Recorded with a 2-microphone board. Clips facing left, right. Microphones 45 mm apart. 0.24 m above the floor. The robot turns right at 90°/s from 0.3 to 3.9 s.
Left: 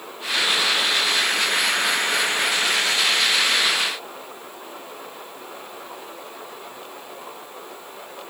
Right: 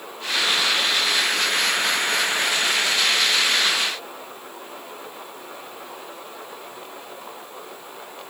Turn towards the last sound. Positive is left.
No sound to turn to.